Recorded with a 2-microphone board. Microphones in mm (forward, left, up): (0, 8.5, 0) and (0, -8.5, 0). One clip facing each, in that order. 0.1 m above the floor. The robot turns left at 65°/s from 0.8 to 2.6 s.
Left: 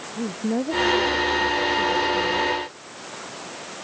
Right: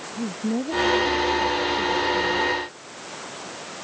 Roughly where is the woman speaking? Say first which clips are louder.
Left 1 dB; behind left.